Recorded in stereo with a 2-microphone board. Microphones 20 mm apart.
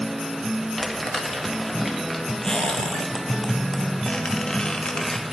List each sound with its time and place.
0.8 s crumpling: 15° left (ahead or behind), 1.4 m
2.4 s a squeak: 35° left (ahead or behind), 1.0 m